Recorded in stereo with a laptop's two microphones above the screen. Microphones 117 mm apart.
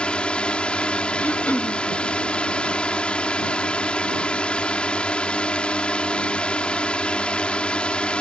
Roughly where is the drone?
Centre.